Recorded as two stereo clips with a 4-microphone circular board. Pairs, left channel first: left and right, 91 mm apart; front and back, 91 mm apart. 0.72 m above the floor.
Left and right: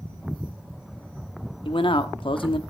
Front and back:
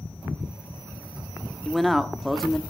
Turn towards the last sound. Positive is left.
turn(degrees=90)